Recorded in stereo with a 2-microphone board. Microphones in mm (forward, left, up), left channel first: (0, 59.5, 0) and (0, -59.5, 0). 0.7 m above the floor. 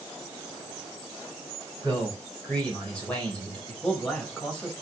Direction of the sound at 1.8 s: 10° left (ahead or behind).